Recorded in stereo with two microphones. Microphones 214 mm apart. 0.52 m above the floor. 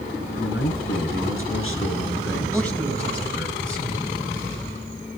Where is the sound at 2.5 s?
5° left (ahead or behind), 4 m.